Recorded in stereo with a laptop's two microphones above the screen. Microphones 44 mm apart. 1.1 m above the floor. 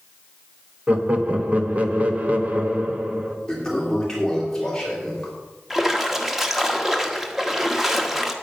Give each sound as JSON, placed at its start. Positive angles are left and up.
{"t": 0.9, "sound": "laughter", "side_deg": -30, "distance_m": 1.7}
{"t": 3.5, "sound": "a toilet flushing", "side_deg": 10, "distance_m": 2.5}
{"t": 5.7, "sound": "a splash", "side_deg": -5, "distance_m": 1.3}